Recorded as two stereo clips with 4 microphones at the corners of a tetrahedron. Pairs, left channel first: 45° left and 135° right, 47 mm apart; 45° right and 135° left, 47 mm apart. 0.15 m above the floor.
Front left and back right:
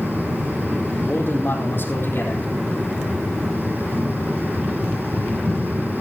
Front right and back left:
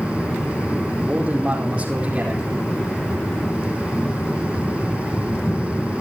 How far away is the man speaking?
About 5 m.